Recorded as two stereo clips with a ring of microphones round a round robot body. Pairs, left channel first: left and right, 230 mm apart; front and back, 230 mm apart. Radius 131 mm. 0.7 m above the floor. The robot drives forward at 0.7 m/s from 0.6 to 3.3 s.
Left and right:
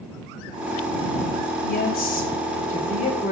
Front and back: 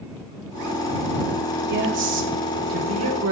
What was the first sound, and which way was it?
A woman speaking, 135° left.